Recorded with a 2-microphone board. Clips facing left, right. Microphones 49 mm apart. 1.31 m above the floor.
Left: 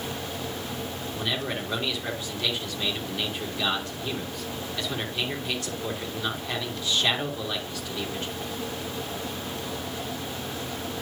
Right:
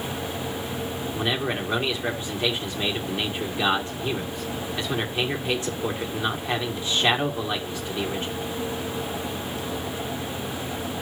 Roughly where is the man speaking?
Right.